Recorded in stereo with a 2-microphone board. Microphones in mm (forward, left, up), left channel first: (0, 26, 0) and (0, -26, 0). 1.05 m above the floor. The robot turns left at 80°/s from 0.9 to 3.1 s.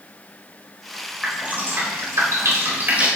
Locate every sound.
1.2 s dripping: 10° right (ahead or behind), 4 m; by 3.1 s 20° right (ahead or behind), 4 m